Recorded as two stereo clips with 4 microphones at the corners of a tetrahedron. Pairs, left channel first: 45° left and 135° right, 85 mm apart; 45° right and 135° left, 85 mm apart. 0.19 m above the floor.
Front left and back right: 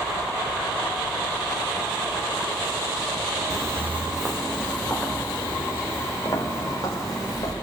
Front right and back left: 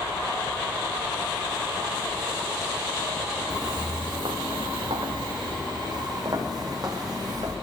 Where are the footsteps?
Straight behind, 0.5 m; by 7.5 s 90° left, 2 m.